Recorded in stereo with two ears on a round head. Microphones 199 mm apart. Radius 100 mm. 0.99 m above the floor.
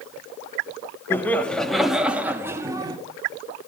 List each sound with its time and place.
1.1 s laughter: 10° left (ahead or behind), 1.9 m; by 3.0 s 20° right (ahead or behind), 1.9 m